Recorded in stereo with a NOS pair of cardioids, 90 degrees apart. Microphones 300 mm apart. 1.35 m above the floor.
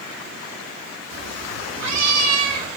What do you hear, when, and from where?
1.1 s a cat meowing: 65° right, 1.8 m; by 2.7 s 55° right, 4 m